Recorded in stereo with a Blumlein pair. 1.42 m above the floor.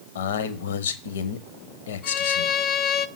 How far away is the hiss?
I don't hear a hiss.